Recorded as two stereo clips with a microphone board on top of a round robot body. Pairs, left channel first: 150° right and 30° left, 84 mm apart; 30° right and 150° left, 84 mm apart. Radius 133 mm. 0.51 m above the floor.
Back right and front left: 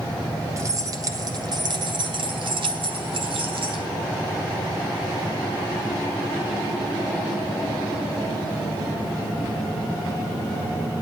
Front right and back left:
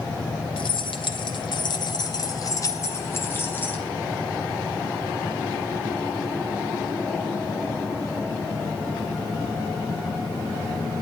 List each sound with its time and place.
0.6 s keys jangling: 25° right, 2 m; by 3.9 s 40° left, 2.5 m